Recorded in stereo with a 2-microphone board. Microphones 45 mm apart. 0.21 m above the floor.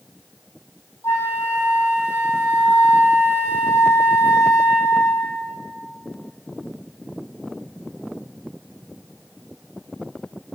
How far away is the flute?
About 1.3 m.